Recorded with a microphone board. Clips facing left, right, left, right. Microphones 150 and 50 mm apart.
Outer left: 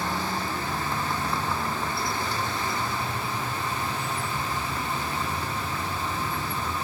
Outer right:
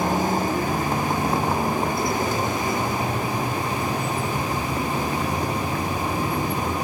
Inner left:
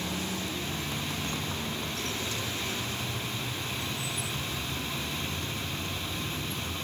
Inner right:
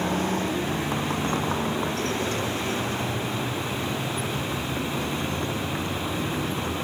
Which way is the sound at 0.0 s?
45° right (ahead or behind).